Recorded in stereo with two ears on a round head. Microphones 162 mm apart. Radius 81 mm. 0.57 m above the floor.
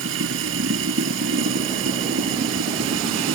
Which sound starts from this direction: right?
Running water, at 0.0 s.